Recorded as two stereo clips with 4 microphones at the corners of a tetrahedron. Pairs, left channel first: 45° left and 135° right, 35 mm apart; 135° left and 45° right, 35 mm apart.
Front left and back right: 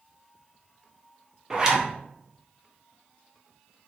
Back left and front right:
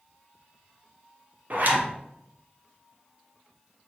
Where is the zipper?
70° right, 0.5 m.